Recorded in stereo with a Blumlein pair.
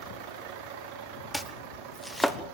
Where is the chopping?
Straight ahead, 1.3 m.